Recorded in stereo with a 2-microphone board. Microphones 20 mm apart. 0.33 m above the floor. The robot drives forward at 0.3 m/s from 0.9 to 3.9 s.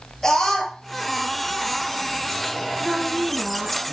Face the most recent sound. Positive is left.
turn(degrees=-60)  # may be behind; listen again after turning